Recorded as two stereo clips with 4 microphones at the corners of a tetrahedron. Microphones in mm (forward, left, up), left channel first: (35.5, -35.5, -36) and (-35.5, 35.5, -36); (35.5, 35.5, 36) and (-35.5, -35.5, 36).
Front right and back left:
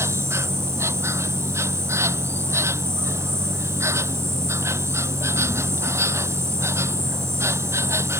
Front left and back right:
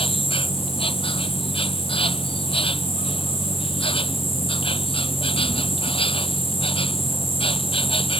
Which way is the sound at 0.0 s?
70° left.